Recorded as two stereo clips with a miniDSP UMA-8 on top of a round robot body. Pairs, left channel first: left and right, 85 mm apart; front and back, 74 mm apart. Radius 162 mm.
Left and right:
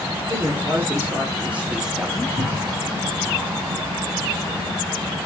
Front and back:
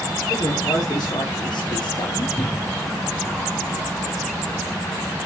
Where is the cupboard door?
65° right, 1.3 m.